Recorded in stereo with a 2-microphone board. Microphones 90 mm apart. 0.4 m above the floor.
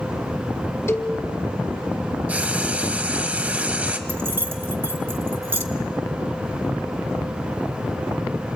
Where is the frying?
15° right (ahead or behind), 1.2 m.